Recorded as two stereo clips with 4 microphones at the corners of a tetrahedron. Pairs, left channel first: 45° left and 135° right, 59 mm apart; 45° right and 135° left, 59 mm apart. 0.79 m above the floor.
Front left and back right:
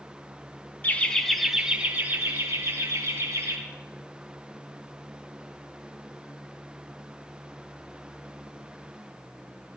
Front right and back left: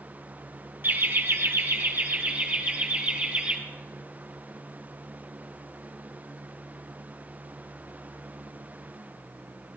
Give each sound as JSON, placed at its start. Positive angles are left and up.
{"t": 0.8, "sound": "laughter", "azimuth_deg": 95, "distance_m": 0.9}